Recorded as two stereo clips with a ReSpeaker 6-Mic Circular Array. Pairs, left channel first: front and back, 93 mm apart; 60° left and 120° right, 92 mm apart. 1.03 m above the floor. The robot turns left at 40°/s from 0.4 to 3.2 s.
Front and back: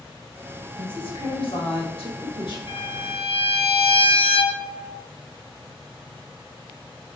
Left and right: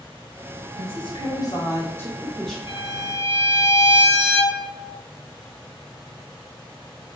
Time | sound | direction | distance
0.8 | a woman speaking | 40° left | 4 m
2.7 | a violin | 20° left | 2.5 m